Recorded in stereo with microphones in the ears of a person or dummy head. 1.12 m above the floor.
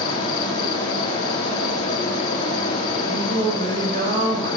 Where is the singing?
50° right (ahead or behind), 6 m.